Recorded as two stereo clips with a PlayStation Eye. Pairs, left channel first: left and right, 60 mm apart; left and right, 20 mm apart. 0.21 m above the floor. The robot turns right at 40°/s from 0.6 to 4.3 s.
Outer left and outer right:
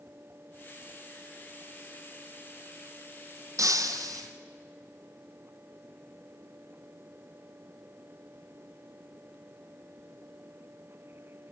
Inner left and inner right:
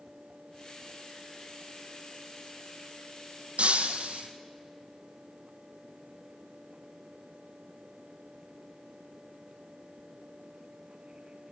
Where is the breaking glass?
70° right (ahead or behind), 1.9 m; by 4.3 s 80° right, 1.9 m.